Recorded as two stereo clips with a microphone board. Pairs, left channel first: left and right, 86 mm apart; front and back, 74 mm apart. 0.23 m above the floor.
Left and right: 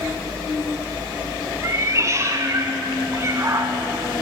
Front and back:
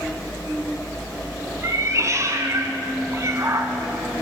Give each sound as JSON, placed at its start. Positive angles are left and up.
{"t": 1.6, "sound": "a cat meowing", "azimuth_deg": -140, "distance_m": 0.8}